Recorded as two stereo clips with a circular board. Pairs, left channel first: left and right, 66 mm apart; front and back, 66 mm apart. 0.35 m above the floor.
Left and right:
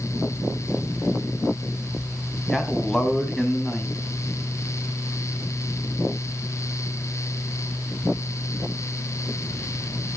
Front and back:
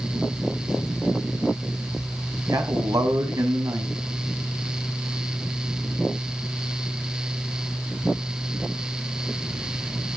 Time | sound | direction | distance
2.5 | a man speaking | 170° left | 3 m